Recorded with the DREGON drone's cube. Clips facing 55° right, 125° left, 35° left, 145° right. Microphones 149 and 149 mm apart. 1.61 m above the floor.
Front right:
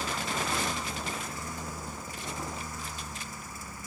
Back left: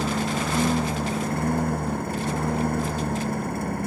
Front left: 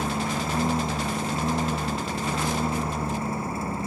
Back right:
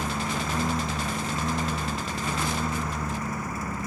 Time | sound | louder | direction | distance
0.0 | a lawn mower | back left 8 dB, front left 2 dB | 95° left | ?